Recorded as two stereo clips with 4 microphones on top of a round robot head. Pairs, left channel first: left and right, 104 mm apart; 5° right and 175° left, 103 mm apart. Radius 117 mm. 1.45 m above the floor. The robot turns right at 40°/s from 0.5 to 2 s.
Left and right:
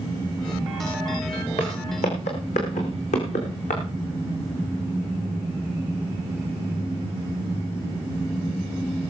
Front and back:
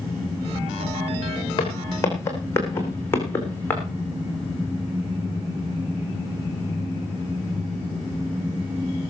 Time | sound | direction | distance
1.6 | footsteps | 40° left | 3.5 m